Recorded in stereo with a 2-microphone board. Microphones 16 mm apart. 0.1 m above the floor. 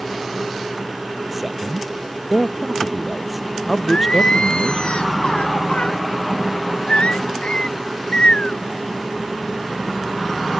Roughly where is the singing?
Left.